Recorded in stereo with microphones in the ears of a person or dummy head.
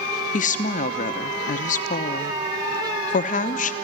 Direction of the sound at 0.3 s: 40° left (ahead or behind).